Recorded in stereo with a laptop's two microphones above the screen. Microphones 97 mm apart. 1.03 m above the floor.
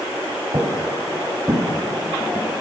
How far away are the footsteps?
About 2.0 m.